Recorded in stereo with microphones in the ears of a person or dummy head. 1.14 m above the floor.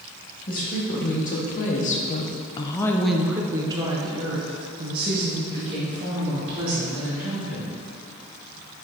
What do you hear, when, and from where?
0.5 s a woman speaking: 40° left (ahead or behind), 1.4 m; by 7.7 s 35° right (ahead or behind), 3 m